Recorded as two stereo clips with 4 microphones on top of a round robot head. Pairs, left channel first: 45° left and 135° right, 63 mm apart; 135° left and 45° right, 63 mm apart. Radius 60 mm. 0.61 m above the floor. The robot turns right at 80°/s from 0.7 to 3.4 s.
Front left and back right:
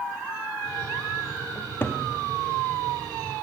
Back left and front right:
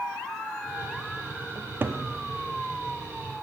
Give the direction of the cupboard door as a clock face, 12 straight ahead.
1 o'clock.